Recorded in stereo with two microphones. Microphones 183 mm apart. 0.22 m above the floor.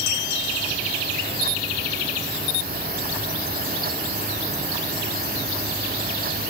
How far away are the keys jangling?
No keys jangling in this recording.